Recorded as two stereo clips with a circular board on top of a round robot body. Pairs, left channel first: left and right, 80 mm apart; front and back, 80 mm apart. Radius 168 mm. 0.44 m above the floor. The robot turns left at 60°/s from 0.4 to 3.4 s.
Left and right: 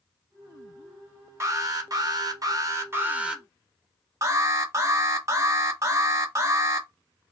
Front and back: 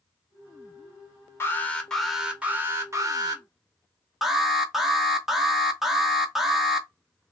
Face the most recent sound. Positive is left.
turn(degrees=-95)